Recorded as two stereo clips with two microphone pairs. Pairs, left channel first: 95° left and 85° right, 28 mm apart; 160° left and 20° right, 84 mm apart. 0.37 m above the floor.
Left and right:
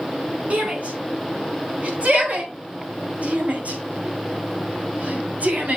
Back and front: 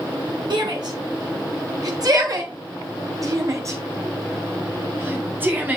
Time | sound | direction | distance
0.5 | a shout | 50° right | 4.5 m